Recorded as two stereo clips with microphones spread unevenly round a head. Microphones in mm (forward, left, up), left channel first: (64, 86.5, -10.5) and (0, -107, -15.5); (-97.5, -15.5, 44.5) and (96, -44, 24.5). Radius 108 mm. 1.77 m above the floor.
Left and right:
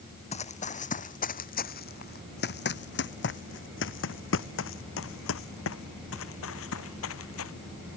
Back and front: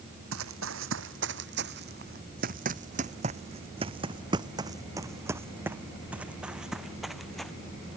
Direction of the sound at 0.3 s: 20° left.